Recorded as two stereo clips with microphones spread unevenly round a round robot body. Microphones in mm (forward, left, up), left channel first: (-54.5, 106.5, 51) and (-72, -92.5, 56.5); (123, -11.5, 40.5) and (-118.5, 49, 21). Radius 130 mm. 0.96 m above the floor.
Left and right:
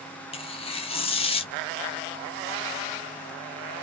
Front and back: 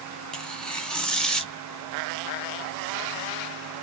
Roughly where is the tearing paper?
Left.